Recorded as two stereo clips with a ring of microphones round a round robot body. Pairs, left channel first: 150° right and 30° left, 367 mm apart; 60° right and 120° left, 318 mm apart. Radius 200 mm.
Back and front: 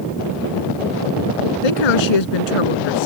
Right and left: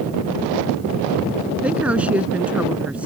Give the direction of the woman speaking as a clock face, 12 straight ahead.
5 o'clock.